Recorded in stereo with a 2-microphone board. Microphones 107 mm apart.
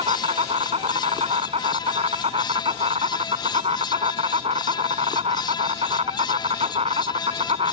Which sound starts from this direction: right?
An insect, at 0.0 s.